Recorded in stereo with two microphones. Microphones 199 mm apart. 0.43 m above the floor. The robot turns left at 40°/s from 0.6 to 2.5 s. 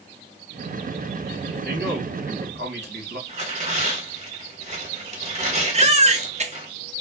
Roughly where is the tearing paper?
Right.